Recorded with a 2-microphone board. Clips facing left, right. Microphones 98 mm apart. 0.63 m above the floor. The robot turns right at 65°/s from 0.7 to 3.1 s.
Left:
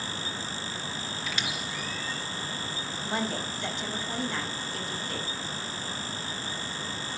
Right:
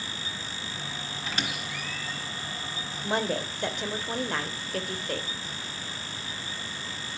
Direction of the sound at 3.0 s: 65° right (ahead or behind).